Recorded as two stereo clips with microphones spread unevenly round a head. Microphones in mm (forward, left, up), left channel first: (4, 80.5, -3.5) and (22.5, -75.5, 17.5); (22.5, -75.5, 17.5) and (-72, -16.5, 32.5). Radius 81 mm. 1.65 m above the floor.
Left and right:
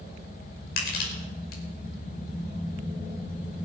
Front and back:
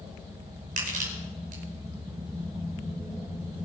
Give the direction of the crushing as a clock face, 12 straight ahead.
8 o'clock.